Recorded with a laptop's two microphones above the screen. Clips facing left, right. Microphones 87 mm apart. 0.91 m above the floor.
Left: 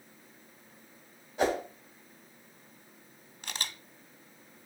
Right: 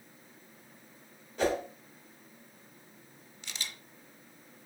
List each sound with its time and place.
1.4 s a whoosh: 15° left (ahead or behind), 2.5 m
3.4 s a camera shutter: 50° left (ahead or behind), 0.8 m